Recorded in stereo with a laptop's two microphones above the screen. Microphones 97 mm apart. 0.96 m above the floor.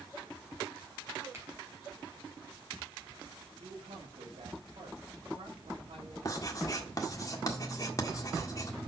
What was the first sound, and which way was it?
A finger snap, 25° right (ahead or behind).